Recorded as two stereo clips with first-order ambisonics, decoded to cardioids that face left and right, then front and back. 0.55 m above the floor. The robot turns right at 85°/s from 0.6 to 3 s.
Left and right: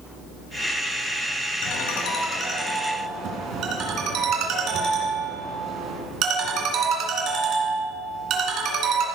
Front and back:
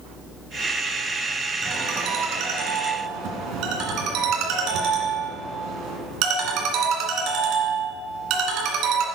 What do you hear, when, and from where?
1.6 s a ringtone: 100° left, 2.5 m; by 9.1 s 140° right, 2.5 m